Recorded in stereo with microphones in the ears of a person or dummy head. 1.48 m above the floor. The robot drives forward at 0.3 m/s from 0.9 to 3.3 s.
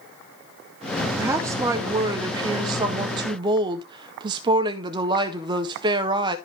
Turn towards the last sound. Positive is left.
turn(degrees=-20)  # may be behind; listen again after turning